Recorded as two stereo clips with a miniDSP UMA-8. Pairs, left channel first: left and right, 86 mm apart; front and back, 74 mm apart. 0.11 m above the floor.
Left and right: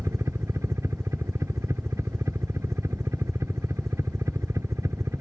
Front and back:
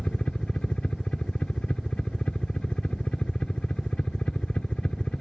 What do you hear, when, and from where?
0.0 s a helicopter: 70° right